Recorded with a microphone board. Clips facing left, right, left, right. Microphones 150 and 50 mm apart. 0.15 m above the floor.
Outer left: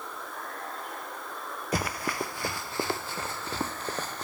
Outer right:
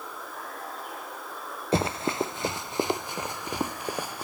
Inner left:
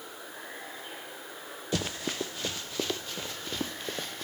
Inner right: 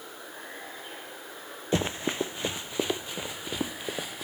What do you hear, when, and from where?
0.0 s running water: centre (ahead or behind)
1.7 s running footsteps: 25° right (ahead or behind); by 4.2 s 10° right (ahead or behind)